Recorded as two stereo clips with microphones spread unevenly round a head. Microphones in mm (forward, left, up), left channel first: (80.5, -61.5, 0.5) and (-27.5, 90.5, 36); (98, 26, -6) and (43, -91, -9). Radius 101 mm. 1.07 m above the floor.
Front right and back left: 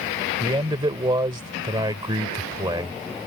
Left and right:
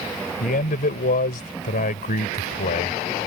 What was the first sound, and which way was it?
A man speaking, 60° left.